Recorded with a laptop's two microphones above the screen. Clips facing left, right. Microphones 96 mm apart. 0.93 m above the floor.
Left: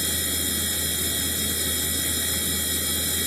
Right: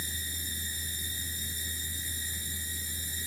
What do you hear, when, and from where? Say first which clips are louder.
0.0 s a machine running: left 12 dB; 80° left